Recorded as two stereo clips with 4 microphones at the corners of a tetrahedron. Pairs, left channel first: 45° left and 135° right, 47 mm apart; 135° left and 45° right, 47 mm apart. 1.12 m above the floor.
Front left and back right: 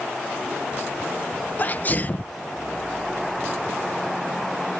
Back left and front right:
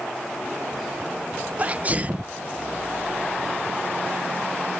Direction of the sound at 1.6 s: Straight ahead.